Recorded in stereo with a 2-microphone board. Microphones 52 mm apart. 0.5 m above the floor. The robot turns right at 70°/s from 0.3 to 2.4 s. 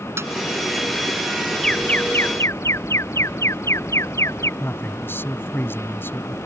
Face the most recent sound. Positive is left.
turn(degrees=45)  # may be behind; listen again after turning